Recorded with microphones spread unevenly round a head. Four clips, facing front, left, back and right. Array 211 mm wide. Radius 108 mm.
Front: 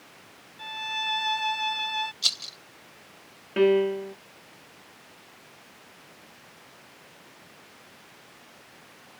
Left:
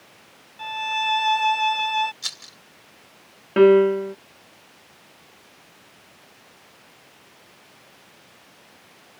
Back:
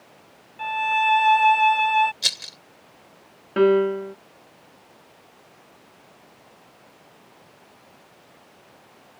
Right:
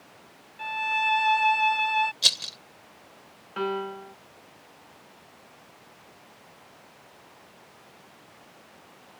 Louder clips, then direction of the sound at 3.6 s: Left 17 dB, back 3 dB; 105° left.